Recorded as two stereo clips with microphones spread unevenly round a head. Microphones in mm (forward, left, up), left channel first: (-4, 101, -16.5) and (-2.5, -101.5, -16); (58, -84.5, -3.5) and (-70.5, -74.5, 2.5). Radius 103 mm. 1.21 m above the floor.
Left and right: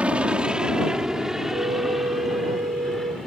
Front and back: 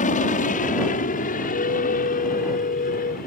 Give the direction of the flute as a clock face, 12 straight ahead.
1 o'clock.